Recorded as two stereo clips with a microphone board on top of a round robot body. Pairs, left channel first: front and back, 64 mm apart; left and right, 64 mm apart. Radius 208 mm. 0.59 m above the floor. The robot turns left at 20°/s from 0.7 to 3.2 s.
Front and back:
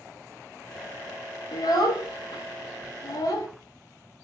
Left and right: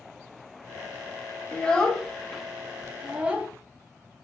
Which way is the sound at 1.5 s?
15° left.